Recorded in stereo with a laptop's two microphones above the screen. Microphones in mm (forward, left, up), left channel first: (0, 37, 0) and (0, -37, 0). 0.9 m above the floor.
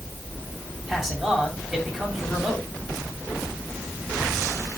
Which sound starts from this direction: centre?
A man speaking, at 0.9 s.